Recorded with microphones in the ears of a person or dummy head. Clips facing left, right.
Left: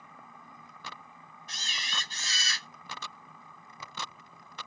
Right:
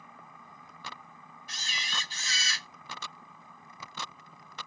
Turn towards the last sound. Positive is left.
turn(degrees=-10)  # may be behind; listen again after turning